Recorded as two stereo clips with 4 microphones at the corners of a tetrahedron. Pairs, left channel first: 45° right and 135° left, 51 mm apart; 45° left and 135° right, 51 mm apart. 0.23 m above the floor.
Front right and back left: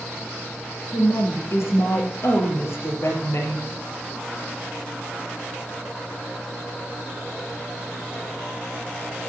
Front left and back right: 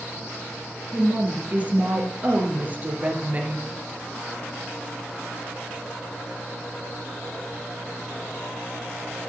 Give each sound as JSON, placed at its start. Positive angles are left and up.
{"t": 0.9, "sound": "a woman speaking", "azimuth_deg": -70, "distance_m": 3.5}